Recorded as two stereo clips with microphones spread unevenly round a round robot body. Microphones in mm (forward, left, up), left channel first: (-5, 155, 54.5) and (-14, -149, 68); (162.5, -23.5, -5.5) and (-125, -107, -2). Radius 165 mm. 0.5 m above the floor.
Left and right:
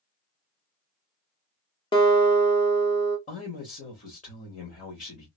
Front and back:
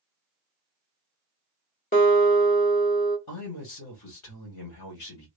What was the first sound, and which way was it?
A guitar, 40° left.